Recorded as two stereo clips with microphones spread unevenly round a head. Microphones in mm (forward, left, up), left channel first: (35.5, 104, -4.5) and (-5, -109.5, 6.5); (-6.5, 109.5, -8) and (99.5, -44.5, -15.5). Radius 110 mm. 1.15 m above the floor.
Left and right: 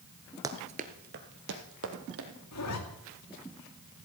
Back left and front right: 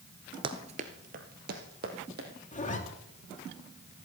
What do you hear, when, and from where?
0.4 s running footsteps: 60° right, 1.2 m; by 2.3 s 95° right, 3 m
2.5 s a zipper: 75° left, 2.5 m